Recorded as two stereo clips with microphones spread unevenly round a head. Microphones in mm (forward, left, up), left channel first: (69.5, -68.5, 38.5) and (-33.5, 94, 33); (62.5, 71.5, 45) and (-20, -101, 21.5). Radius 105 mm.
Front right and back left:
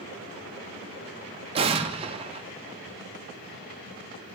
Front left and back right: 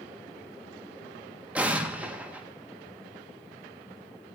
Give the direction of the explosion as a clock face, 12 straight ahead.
7 o'clock.